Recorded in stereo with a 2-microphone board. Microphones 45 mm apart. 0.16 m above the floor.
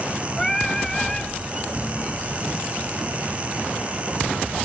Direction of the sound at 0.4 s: 10° left (ahead or behind).